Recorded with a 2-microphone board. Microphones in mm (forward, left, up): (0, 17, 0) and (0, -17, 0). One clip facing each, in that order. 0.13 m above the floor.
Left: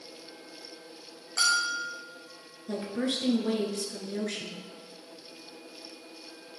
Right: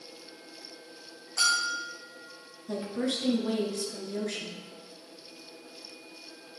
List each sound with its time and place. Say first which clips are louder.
1.4 s a bell: left 1 dB; 60° left (ahead or behind), 4 m
2.7 s a woman speaking: even; 15° left (ahead or behind), 1.6 m